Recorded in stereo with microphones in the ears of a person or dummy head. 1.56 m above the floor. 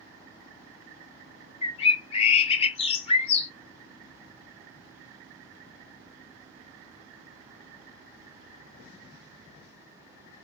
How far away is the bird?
About 0.7 m.